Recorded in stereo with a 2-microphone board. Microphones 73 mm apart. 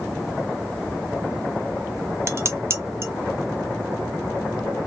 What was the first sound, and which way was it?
Dishes clattering, 35° right (ahead or behind).